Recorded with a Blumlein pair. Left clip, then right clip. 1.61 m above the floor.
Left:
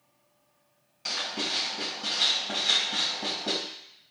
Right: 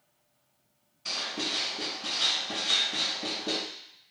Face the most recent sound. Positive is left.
turn(degrees=50)